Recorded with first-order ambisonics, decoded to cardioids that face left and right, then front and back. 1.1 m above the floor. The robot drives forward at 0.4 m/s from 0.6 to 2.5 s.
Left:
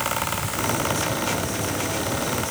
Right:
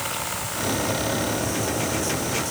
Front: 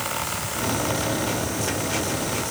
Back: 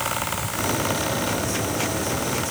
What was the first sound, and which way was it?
Only background noise.